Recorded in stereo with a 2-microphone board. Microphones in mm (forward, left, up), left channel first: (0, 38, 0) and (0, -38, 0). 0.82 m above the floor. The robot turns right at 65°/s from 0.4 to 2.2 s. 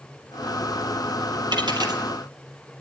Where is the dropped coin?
75° right (ahead or behind), 2.5 m; by 2.0 s 55° right (ahead or behind), 2.5 m.